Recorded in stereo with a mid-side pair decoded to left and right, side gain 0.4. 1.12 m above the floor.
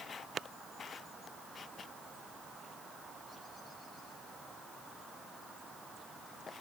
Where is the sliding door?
I don't hear a sliding door.